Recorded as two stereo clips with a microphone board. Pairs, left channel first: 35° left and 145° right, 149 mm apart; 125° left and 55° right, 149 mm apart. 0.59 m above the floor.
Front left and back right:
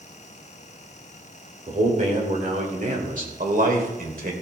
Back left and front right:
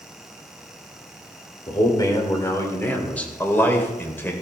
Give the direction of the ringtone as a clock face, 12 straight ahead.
No ringtone in this recording.